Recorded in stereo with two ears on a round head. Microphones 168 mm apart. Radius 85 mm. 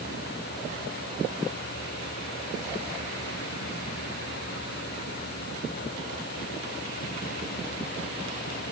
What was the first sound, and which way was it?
Only background noise.